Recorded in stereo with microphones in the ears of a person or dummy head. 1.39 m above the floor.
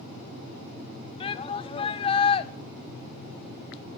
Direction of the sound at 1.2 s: 30° left (ahead or behind).